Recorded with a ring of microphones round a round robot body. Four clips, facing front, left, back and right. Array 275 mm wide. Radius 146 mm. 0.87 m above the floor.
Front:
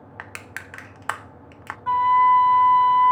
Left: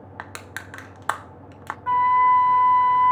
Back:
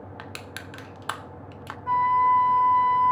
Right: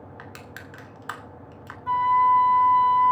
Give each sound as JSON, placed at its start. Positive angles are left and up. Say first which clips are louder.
{"t": 0.2, "sound": "crushing", "louder": "left 4 dB, front 1 dB", "azimuth_deg": 75, "distance_m": 0.8}
{"t": 1.9, "sound": "a flute", "louder": "left 2 dB, front 4 dB", "azimuth_deg": 45, "distance_m": 1.6}